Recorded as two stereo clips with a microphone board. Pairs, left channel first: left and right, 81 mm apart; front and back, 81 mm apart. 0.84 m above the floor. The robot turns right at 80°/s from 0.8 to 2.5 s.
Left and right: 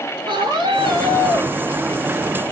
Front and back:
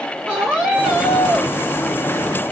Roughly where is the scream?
Right.